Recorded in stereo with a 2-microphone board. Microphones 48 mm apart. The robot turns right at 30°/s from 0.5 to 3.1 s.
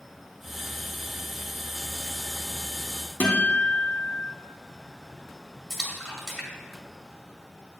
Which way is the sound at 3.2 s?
35° left (ahead or behind).